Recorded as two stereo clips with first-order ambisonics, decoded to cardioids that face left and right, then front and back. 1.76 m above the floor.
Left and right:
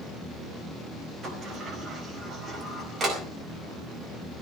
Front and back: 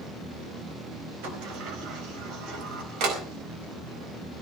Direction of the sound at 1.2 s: 155° right.